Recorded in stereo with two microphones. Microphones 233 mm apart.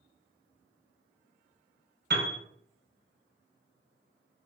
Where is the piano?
50° right (ahead or behind), 0.6 m.